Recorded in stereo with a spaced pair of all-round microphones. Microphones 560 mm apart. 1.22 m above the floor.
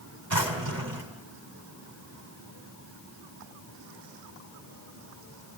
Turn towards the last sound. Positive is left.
turn(degrees=-40)  # may be behind; listen again after turning